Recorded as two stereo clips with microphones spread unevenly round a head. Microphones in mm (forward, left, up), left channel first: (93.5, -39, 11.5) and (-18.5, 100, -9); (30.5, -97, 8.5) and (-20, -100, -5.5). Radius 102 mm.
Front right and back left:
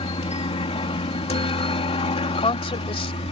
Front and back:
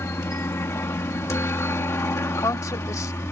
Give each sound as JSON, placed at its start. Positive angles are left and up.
{"t": 0.0, "sound": "a helicopter", "azimuth_deg": 0}
{"t": 2.3, "sound": "a woman speaking", "azimuth_deg": 10}